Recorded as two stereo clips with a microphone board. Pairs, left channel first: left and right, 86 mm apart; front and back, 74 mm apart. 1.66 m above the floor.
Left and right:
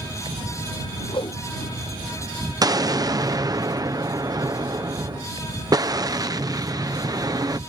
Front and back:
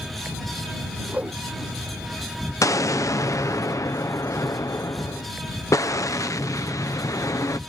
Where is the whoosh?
105° left.